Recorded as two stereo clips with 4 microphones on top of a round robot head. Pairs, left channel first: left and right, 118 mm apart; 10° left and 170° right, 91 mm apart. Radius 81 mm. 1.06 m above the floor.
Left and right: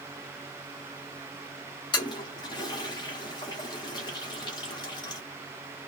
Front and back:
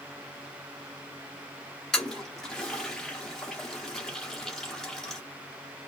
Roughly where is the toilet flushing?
Left.